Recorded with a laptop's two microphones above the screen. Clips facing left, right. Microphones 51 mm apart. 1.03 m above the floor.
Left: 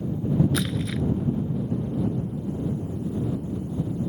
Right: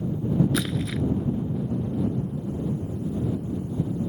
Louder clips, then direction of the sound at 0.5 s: Even; 5° right (ahead or behind).